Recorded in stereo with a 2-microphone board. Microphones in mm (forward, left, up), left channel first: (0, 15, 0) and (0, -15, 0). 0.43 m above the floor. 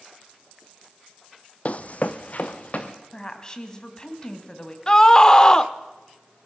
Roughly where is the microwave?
I don't hear a microwave.